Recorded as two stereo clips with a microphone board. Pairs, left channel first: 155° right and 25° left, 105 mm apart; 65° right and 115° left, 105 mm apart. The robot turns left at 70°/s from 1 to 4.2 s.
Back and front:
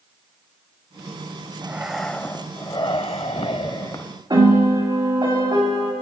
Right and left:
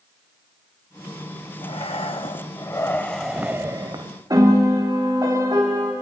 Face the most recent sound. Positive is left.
turn(degrees=70)